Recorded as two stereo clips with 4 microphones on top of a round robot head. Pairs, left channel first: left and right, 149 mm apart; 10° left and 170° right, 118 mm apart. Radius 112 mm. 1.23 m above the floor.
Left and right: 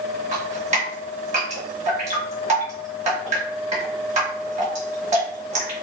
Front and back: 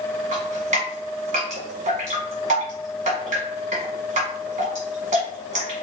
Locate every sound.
0.3 s dripping: 135° right, 1.6 m